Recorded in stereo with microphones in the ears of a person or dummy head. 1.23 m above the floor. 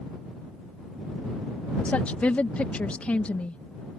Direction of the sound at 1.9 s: 10° left (ahead or behind).